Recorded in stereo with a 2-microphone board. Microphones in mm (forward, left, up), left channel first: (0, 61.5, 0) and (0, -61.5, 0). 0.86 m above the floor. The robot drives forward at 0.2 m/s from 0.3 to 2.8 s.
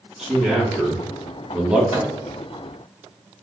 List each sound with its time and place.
0.2 s a man speaking: 5° right (ahead or behind), 1.1 m
1.9 s a microwave: 60° left (ahead or behind), 1.2 m